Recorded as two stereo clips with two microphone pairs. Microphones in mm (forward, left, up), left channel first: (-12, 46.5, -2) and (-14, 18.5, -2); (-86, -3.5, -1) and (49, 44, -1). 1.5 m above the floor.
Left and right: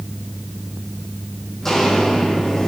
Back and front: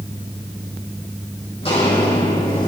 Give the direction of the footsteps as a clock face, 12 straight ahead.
7 o'clock.